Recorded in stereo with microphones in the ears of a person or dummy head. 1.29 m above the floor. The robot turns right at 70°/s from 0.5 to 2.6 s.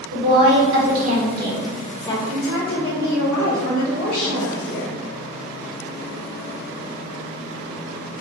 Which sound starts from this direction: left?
A woman speaking, at 2.3 s.